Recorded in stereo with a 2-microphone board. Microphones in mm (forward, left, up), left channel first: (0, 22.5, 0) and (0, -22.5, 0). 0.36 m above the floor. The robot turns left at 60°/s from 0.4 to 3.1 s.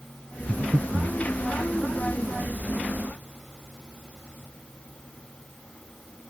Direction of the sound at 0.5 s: 50° right (ahead or behind).